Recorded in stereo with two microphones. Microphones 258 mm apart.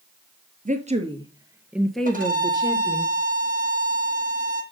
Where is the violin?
30° right (ahead or behind), 1.8 m.